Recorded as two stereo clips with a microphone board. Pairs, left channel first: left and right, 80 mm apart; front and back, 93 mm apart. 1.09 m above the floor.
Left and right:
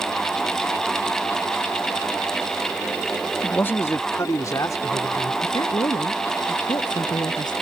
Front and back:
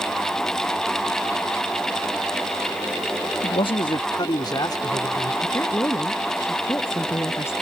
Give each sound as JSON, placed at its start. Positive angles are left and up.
{"t": 3.4, "sound": "a man speaking", "azimuth_deg": 15}
{"t": 5.4, "sound": "a woman speaking", "azimuth_deg": 60}